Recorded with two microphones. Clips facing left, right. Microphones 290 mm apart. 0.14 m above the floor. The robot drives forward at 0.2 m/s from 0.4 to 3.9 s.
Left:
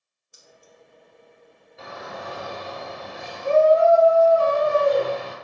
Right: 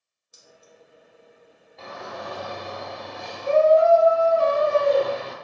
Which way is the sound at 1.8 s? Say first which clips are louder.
Even; 5° left (ahead or behind).